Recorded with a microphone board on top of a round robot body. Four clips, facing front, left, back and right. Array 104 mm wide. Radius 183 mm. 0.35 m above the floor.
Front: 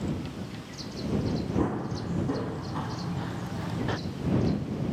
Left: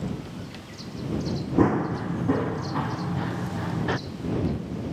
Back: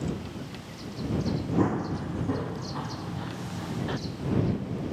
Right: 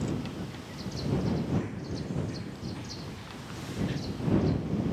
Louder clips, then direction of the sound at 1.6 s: Left 14 dB, back 5 dB; 100° left.